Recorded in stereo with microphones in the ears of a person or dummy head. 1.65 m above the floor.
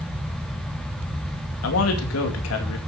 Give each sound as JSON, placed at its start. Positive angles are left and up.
{"t": 1.6, "sound": "a man speaking", "side_deg": 80, "distance_m": 2.5}